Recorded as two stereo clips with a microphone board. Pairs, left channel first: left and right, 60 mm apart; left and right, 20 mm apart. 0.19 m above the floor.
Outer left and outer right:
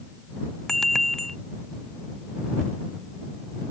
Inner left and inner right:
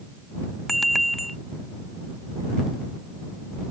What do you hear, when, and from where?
0.7 s a bicycle bell: 5° left (ahead or behind)